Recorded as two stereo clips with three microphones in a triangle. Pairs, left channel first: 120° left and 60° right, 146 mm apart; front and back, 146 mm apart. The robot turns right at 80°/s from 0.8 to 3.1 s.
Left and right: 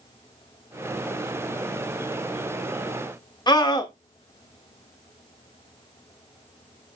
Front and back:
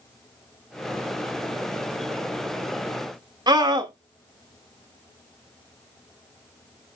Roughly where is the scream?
Behind left.